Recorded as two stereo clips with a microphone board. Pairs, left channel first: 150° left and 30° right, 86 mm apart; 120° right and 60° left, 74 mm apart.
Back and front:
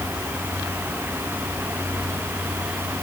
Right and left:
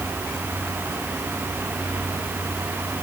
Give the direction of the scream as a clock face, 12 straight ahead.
No scream in this recording.